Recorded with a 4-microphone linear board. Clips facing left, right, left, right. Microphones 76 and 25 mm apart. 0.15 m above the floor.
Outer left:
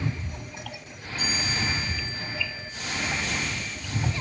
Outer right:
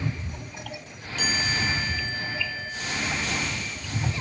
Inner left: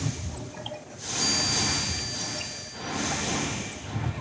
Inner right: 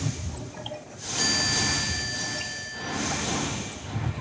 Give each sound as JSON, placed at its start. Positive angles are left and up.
{"t": 1.2, "sound": "a chime", "side_deg": -85, "distance_m": 3.0}